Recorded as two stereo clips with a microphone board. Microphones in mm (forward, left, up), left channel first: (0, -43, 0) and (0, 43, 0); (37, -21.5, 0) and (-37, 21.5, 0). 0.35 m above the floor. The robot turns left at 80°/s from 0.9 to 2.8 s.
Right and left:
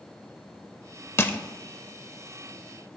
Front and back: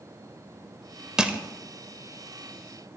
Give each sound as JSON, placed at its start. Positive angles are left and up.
{"t": 1.2, "sound": "crushing", "azimuth_deg": -135, "distance_m": 0.6}